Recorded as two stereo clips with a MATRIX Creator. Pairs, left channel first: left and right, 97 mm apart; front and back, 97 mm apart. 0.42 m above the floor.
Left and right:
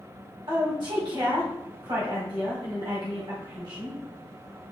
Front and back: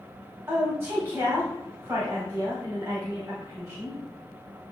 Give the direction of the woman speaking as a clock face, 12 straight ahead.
4 o'clock.